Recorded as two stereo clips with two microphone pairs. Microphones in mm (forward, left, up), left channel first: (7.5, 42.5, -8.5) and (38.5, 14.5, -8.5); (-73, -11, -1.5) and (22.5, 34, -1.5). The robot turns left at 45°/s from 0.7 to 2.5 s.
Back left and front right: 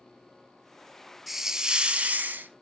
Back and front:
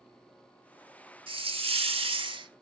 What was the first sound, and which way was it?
A hiss, 50° left.